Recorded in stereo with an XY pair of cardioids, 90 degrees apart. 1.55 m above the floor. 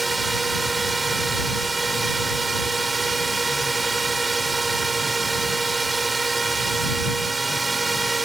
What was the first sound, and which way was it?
A drone, 20° right.